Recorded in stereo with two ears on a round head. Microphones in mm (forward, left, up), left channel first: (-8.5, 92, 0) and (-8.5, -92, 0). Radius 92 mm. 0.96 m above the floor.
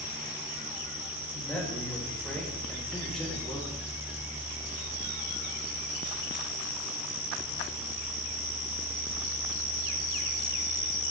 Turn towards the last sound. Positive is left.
turn(degrees=0)  # may be behind; listen again after turning